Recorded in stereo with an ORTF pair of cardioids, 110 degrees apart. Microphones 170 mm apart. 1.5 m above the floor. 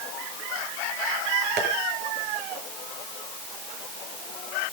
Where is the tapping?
70° right, 7 m.